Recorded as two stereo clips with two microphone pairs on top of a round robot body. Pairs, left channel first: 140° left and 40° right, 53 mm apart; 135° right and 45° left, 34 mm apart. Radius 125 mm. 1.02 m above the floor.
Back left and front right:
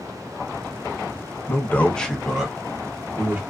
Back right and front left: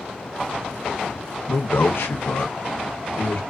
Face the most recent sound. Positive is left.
turn(degrees=-95)